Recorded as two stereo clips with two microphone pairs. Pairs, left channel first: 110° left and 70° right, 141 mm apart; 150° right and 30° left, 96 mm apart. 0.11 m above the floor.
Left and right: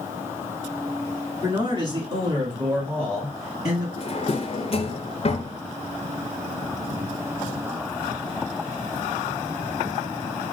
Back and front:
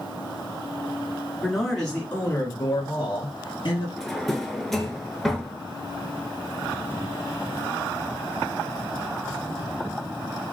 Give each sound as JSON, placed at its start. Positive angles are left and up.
{"t": 1.4, "sound": "a man speaking", "azimuth_deg": -50, "distance_m": 1.4}
{"t": 4.0, "sound": "a drawer", "azimuth_deg": 125, "distance_m": 0.5}